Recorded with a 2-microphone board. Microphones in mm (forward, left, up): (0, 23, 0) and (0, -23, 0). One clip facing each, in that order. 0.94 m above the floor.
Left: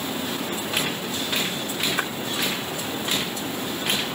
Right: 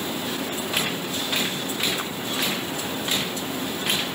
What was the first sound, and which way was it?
A splash, 75° left (ahead or behind).